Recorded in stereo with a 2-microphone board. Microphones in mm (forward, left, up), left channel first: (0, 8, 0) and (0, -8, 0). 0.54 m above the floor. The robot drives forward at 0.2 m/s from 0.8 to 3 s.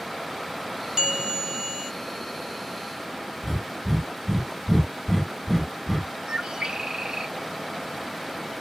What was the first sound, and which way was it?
A bell, 70° right (ahead or behind).